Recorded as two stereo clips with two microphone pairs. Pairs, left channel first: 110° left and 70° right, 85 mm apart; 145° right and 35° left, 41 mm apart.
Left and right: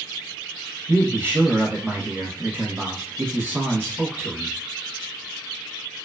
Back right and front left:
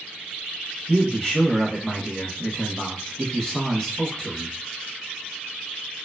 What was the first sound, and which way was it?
A man speaking, 95° right.